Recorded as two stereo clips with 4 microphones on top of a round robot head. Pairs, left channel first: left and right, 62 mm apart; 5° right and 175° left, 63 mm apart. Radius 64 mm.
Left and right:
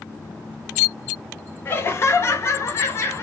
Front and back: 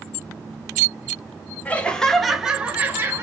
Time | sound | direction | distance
1.6 | laughter | 55° left | 0.9 m